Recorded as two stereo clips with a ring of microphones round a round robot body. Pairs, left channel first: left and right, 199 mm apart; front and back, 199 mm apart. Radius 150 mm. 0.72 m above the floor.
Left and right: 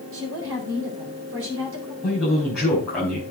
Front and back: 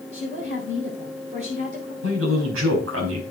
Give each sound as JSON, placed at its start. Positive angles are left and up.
{"t": 0.1, "sound": "a woman speaking", "azimuth_deg": -115, "distance_m": 4.0}
{"t": 2.0, "sound": "a man speaking", "azimuth_deg": 180, "distance_m": 4.5}